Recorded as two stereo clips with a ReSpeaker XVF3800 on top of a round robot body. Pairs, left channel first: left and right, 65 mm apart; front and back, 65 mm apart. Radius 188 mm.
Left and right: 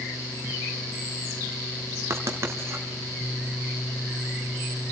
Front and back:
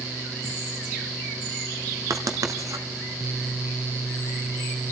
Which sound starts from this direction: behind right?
Writing, at 2.1 s.